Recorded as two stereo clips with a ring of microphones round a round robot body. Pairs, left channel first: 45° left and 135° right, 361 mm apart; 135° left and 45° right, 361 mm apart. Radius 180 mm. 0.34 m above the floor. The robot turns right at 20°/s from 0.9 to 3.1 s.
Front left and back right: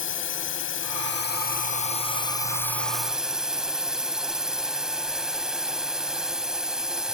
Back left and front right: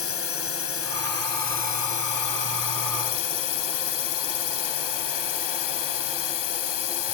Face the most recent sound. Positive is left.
turn(degrees=135)